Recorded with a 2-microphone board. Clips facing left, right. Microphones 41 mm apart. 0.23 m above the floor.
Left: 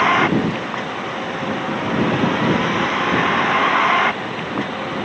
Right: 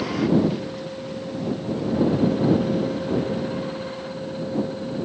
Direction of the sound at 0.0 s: 55° left (ahead or behind).